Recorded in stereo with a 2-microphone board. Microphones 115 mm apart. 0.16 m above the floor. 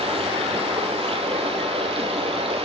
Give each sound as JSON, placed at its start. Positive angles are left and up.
{"t": 0.0, "sound": "running water", "side_deg": -60, "distance_m": 0.9}